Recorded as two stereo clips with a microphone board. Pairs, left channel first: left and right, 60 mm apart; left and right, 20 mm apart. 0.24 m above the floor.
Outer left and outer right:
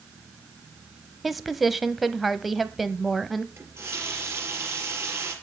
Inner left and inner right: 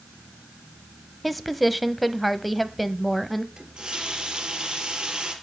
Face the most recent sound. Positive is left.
turn(degrees=-45)  # may be behind; listen again after turning